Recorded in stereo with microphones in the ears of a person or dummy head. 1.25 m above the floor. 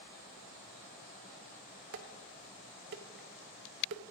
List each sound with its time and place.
1.9 s dishes clattering: 50° right (ahead or behind), 0.6 m